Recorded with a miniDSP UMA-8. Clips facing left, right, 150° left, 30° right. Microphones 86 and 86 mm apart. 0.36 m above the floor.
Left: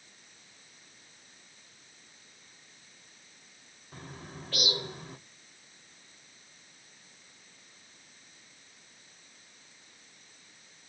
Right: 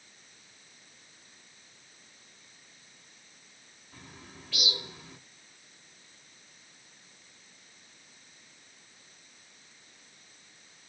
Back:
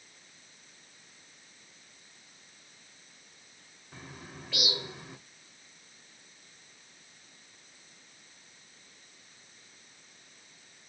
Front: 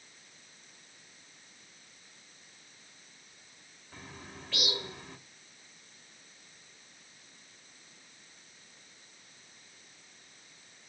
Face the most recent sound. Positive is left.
turn(degrees=75)